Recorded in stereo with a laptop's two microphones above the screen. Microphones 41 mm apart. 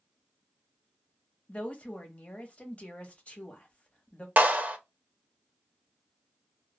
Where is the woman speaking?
30° left (ahead or behind), 0.9 m.